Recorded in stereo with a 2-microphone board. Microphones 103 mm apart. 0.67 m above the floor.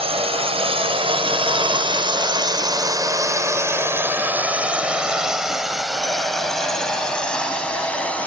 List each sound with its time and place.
0.0 s a drone: 70° right (ahead or behind); by 8.3 s 15° left (ahead or behind)